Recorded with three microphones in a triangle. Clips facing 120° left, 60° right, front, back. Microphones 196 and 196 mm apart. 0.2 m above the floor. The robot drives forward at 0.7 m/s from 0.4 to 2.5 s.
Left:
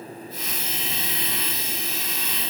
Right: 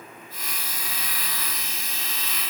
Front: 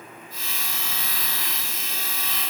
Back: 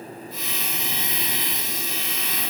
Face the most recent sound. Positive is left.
No sound to turn to.